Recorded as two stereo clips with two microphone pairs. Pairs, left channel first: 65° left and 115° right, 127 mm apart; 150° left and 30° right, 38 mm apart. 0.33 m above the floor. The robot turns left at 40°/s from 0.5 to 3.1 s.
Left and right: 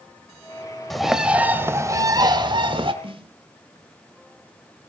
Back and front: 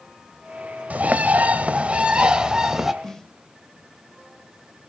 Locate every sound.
0.9 s a bird: 25° right, 1.2 m; by 2.9 s 105° right, 1.2 m
3.0 s a snare drum: 135° right, 1.1 m; by 3.4 s 140° right, 1.1 m